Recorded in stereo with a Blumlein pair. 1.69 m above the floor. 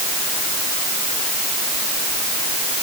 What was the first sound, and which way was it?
Only background noise.